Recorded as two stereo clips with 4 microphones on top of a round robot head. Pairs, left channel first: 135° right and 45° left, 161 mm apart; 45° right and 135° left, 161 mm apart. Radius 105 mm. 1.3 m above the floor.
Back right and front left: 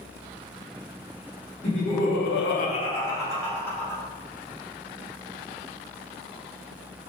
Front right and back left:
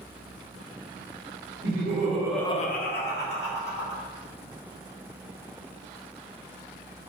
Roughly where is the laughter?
Behind.